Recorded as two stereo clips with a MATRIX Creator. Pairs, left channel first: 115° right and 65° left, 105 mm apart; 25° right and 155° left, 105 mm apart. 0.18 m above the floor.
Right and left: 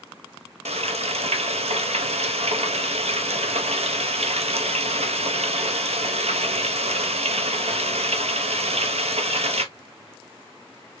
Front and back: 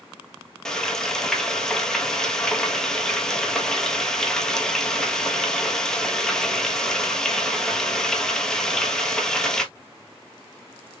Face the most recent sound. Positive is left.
turn(degrees=60)